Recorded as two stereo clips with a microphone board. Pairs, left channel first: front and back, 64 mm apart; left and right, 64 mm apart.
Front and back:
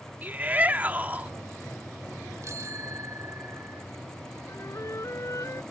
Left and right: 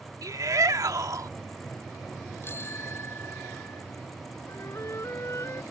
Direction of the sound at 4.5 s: 45° left.